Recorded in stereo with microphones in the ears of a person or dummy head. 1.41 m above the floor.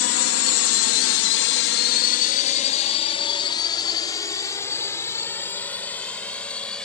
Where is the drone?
65° left (ahead or behind); by 6.8 s 10° left (ahead or behind).